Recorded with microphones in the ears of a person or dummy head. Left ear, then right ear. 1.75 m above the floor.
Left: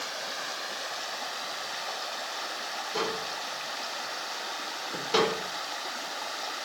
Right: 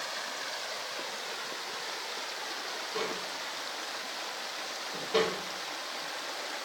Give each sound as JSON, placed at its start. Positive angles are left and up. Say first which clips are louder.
{"t": 2.9, "sound": "tapping", "louder": "left 4 dB", "side_deg": 55, "distance_m": 4.0}